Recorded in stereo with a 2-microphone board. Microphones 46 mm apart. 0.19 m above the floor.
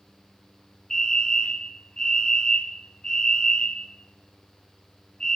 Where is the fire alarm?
20° left (ahead or behind), 1.9 m.